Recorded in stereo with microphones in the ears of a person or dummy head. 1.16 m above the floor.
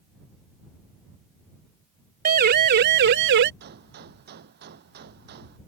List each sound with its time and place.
2.2 s a siren: 45° right (ahead or behind); by 3.5 s 60° right (ahead or behind)
3.6 s a gunshot: 50° right (ahead or behind)